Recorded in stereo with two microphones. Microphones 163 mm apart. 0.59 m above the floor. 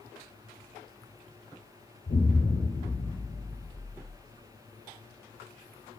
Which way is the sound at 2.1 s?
60° left (ahead or behind).